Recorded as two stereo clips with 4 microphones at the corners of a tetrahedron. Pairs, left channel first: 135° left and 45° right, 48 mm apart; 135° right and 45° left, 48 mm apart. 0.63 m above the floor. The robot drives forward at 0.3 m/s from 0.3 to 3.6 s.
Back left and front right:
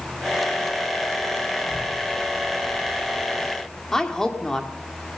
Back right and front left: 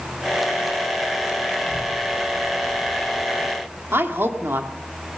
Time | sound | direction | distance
1.6 | a child speaking | 135° left | 6 m
3.9 | a woman speaking | 60° left | 1.7 m